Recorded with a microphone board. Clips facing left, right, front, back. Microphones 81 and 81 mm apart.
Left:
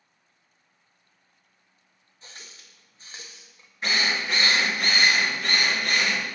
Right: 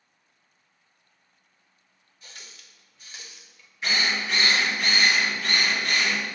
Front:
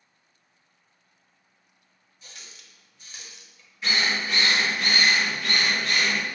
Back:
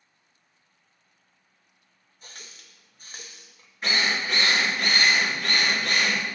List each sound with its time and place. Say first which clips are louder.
2.2 s a running tap: left 1 dB, back 2 dB; 145° left, 1.0 m
3.8 s a drill: even, even; 135° left, 3 m